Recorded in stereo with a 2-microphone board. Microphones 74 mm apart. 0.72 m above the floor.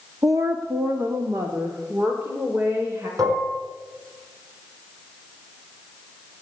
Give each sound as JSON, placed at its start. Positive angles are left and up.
{"t": 0.2, "sound": "a woman speaking", "side_deg": -45, "distance_m": 0.9}
{"t": 3.2, "sound": "dishes clattering", "side_deg": -50, "distance_m": 4.5}